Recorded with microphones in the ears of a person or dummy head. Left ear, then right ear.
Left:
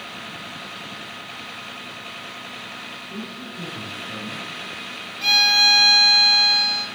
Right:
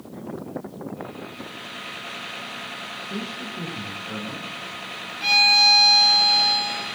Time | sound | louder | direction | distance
3.1 | a man speaking | right 2 dB | 55° right (ahead or behind) | 1.4 m
5.2 | a violin | even | 10° left (ahead or behind) | 0.6 m